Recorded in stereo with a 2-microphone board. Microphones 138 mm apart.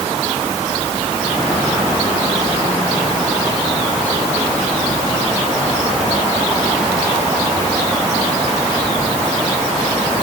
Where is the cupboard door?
I don't hear a cupboard door.